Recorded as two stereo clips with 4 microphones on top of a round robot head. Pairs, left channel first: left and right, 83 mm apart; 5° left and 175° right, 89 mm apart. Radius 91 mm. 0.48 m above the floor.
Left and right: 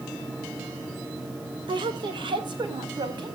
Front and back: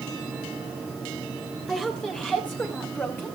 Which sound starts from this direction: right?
A woman speaking, at 1.7 s.